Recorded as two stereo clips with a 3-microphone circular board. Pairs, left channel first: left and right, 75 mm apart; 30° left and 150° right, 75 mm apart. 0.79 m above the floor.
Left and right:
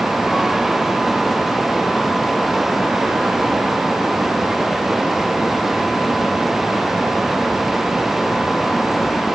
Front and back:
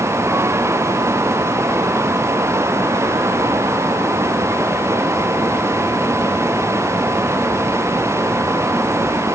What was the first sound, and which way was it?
Only background noise.